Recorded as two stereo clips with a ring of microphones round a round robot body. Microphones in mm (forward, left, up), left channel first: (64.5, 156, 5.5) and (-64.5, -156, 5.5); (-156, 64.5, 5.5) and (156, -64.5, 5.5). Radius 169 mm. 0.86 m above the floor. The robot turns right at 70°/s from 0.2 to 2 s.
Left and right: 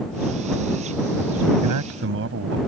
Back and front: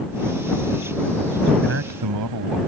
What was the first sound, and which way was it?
A man speaking, 85° right.